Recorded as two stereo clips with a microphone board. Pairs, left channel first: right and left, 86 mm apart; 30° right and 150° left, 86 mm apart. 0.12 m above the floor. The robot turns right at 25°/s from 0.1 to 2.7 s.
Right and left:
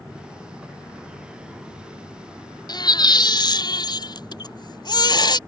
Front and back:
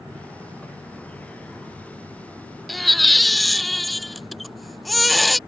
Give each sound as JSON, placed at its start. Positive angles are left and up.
{"t": 2.7, "sound": "a baby crying", "azimuth_deg": -120}